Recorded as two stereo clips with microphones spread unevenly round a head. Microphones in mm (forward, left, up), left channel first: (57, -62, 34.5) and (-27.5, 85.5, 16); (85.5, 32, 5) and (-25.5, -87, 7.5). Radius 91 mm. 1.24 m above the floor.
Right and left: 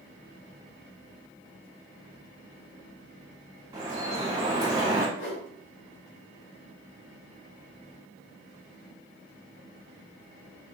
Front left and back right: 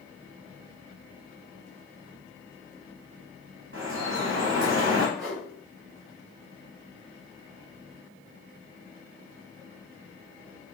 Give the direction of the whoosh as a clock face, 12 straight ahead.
1 o'clock.